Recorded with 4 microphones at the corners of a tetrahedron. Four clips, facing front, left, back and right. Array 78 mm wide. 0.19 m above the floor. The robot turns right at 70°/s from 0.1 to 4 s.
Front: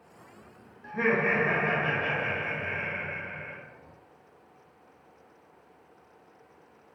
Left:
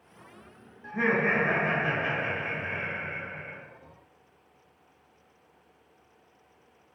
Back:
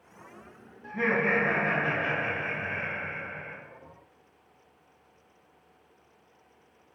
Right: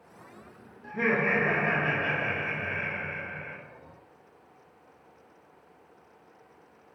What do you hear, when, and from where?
0.8 s laughter: 60° left, 1.0 m; by 3.6 s 110° right, 1.0 m